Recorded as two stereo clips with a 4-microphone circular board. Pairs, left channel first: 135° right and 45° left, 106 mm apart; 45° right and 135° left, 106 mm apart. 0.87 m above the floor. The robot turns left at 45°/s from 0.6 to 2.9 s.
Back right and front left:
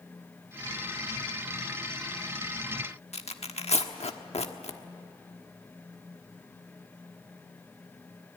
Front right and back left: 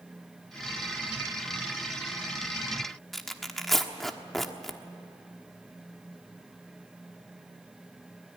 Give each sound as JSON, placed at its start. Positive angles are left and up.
{"t": 3.1, "sound": "tearing paper", "azimuth_deg": -135, "distance_m": 1.3}